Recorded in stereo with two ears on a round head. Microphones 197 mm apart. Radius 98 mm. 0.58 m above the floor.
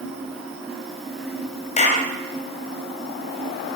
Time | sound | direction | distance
1.8 | a clap | 30° left (ahead or behind) | 2.5 m